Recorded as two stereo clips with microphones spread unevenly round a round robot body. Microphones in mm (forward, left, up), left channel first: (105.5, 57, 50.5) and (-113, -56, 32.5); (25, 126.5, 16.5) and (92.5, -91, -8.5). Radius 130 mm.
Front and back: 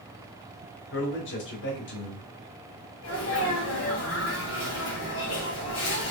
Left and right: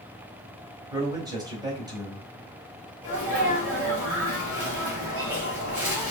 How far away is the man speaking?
About 1.6 m.